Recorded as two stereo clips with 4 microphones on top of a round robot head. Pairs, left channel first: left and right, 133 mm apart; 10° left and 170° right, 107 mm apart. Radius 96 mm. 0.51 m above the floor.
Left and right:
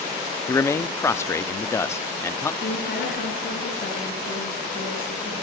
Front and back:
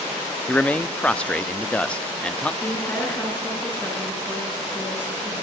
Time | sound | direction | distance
0.5 | a man speaking | 70° left | 0.8 m
2.6 | a woman speaking | 85° left | 7.5 m